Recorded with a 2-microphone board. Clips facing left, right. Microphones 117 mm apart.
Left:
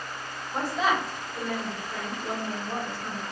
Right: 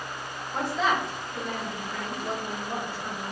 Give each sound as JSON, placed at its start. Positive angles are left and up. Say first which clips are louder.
{"t": 0.5, "sound": "a woman speaking", "louder": "even", "side_deg": 5, "distance_m": 1.3}